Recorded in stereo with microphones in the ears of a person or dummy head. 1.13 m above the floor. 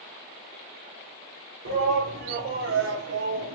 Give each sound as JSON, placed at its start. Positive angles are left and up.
{"t": 1.6, "sound": "a shout", "side_deg": -60, "distance_m": 3.5}